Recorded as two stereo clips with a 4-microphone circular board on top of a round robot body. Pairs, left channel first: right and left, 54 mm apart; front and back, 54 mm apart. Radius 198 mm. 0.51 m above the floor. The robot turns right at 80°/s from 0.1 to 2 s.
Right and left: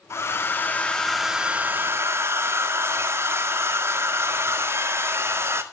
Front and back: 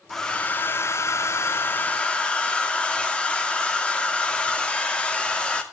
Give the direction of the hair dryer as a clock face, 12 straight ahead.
3 o'clock.